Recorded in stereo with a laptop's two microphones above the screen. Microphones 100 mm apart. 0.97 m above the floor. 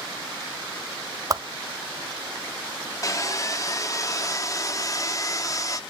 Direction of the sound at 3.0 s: 35° left (ahead or behind).